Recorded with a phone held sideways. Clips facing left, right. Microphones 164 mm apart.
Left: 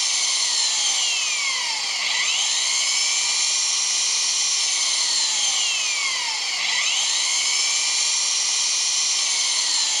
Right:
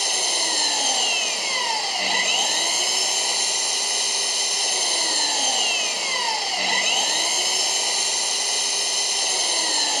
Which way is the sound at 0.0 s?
55° right (ahead or behind).